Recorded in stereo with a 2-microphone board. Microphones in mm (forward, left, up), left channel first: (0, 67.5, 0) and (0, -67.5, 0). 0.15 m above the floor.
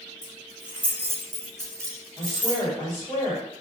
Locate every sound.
0.2 s keys jangling: 5° right (ahead or behind), 1.5 m; by 2.6 s 25° right (ahead or behind), 1.2 m
2.2 s a woman speaking: 20° left (ahead or behind), 1.7 m